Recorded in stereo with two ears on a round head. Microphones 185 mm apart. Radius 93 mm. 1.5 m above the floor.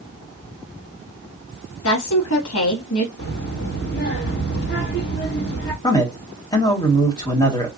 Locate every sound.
1.8 s a woman speaking: 65° left (ahead or behind), 1.4 m
3.2 s a child speaking: 50° left (ahead or behind), 1.4 m
5.8 s a man speaking: 20° left (ahead or behind), 1.3 m